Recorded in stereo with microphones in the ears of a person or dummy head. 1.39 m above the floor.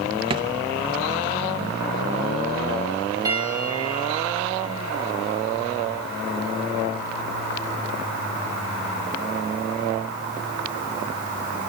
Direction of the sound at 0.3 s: 30° right (ahead or behind).